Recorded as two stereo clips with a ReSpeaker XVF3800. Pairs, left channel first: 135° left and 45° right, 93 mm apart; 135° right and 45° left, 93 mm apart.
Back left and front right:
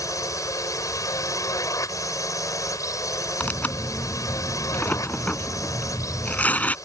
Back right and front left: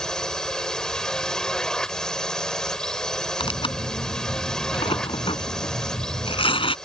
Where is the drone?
145° left.